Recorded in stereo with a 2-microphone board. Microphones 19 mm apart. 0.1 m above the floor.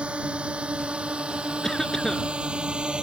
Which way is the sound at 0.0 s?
60° right (ahead or behind).